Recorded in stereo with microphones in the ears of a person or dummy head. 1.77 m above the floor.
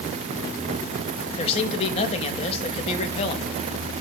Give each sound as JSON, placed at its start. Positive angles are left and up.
{"t": 1.4, "sound": "a man speaking", "side_deg": 35, "distance_m": 1.9}